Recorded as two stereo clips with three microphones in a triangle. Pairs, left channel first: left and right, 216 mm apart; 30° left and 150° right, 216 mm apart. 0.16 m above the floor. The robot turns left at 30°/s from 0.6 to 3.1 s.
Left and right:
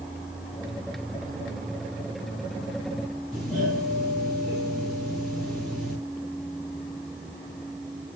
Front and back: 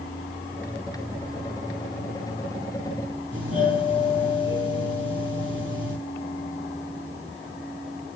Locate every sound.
3.3 s a doorbell: straight behind, 6 m